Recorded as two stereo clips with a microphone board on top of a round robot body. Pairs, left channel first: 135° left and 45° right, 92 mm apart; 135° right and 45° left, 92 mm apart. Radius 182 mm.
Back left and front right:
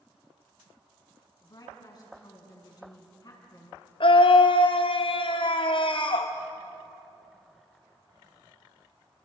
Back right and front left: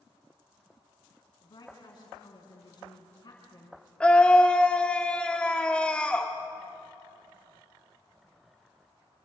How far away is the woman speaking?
About 6 m.